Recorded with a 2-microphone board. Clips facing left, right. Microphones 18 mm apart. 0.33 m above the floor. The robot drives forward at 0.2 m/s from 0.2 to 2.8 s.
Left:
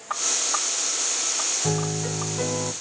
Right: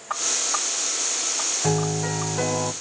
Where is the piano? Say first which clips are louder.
Right 2 dB; 60° right (ahead or behind), 1.0 m; by 2.7 s 65° right (ahead or behind), 1.0 m.